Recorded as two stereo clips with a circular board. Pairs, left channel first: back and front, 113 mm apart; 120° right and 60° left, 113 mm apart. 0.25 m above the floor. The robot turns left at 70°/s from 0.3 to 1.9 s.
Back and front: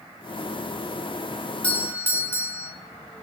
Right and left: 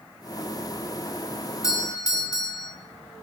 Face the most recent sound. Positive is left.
turn(degrees=-130)